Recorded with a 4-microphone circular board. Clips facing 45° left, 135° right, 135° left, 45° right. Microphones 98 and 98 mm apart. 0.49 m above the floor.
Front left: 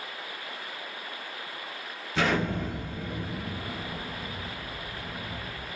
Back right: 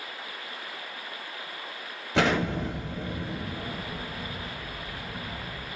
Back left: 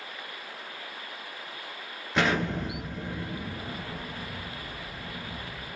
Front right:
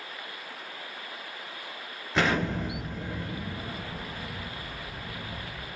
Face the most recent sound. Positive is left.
turn(degrees=-135)